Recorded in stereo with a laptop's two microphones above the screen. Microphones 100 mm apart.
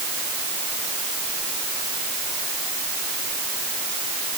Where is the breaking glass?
I don't hear breaking glass.